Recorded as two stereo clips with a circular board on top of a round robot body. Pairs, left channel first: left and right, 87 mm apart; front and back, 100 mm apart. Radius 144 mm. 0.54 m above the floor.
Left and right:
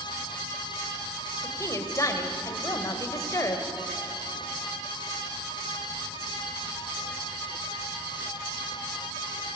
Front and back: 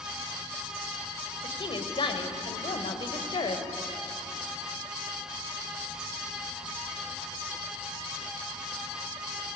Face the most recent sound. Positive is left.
turn(degrees=35)